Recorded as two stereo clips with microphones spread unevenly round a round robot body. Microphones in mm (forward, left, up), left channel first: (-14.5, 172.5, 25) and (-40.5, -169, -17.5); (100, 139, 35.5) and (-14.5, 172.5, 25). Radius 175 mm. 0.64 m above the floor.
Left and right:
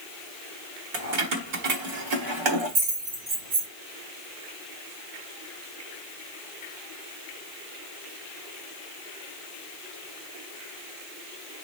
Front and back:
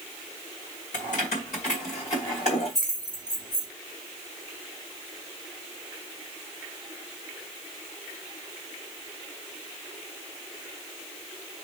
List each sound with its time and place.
0.9 s keys jangling: 40° right, 1.2 m; by 3.7 s 85° right, 3 m